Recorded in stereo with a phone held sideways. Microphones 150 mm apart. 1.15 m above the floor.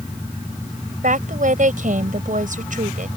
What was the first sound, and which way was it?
A woman speaking, 65° right (ahead or behind).